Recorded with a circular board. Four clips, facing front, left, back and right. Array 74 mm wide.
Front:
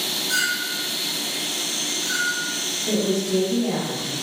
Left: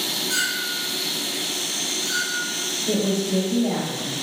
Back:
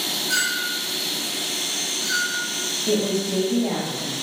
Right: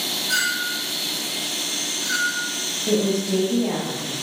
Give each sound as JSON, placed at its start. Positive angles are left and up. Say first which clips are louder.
{"t": 0.3, "sound": "a clink", "louder": "right 4 dB, even", "azimuth_deg": -115, "distance_m": 0.7}
{"t": 2.9, "sound": "a woman speaking", "louder": "right 2 dB, even", "azimuth_deg": -115, "distance_m": 1.5}